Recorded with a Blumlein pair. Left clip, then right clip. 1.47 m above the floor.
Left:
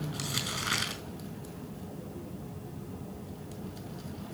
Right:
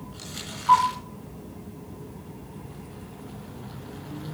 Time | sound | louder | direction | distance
0.1 | crumpling | left 5 dB | 70° left | 5 m